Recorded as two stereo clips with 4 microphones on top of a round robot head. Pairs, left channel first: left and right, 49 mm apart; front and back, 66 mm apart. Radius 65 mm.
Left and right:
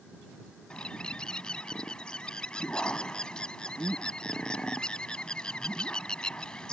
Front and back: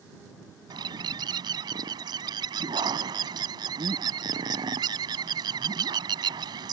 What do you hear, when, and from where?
0.7 s a bird: 165° left